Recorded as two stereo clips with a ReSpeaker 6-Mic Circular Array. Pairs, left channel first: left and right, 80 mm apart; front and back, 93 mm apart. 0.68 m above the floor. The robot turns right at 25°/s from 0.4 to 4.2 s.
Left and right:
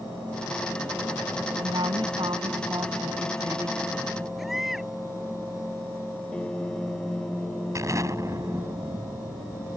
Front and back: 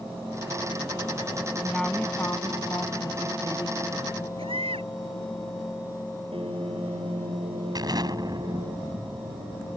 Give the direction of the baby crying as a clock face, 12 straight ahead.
6 o'clock.